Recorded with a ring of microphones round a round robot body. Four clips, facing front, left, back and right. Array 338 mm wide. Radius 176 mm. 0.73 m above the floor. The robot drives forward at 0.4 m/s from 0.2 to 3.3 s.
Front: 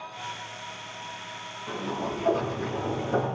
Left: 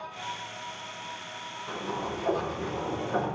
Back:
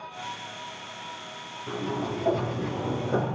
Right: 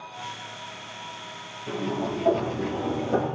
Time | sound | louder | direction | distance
1.7 | a sliding door | right 5 dB, back 1 dB | 125° right | 8.5 m